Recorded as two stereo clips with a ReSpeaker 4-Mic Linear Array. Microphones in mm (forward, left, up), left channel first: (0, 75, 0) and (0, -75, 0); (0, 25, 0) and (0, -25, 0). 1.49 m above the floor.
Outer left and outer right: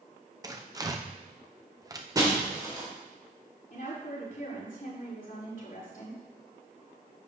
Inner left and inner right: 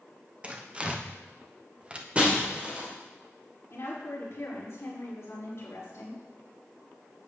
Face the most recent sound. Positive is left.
turn(degrees=60)  # may be behind; listen again after turning